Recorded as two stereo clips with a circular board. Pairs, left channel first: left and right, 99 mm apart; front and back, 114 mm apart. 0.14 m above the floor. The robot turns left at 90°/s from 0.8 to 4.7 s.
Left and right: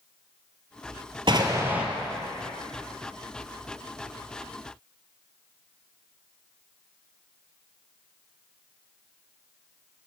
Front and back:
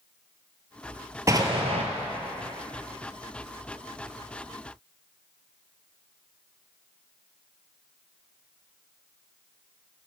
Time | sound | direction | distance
1.3 | an explosion | 120° right | 0.6 m